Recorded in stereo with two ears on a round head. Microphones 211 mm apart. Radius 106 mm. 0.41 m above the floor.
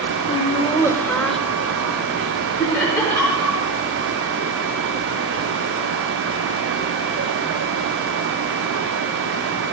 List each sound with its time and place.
0.3 s laughter: 30° left (ahead or behind), 0.9 m; by 2.7 s 15° right (ahead or behind), 1.9 m
2.6 s laughter: 5° left (ahead or behind), 5.5 m